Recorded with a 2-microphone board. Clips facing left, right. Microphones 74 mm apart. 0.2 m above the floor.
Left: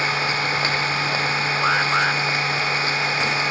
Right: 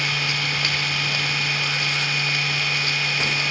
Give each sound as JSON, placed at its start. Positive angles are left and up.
{"t": 0.0, "sound": "an engine running", "side_deg": 35}
{"t": 1.6, "sound": "an alarm", "side_deg": 80}